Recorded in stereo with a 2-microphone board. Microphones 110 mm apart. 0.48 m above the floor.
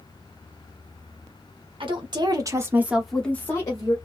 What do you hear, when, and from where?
1.8 s a woman speaking: 50° right (ahead or behind), 1.0 m; by 4.0 s 40° left (ahead or behind), 0.8 m